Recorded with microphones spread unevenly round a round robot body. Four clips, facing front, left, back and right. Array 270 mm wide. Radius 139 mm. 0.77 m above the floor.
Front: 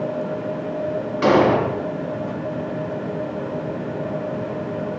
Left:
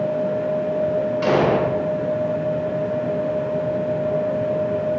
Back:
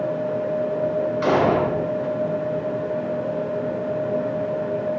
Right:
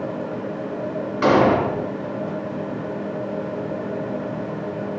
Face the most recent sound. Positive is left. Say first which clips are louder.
# right 4 dB, front 4 dB
turn(degrees=-45)